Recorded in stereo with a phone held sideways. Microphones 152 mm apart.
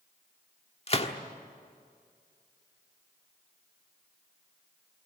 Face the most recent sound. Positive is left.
turn(degrees=45)  # may be behind; listen again after turning